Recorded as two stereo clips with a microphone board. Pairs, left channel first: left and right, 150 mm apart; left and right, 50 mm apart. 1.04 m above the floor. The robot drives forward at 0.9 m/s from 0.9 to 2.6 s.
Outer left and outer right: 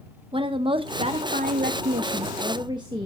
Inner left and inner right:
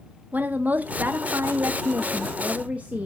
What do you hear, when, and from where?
0.3 s a woman speaking: 35° right (ahead or behind), 0.9 m; by 3.1 s 30° right (ahead or behind), 1.0 m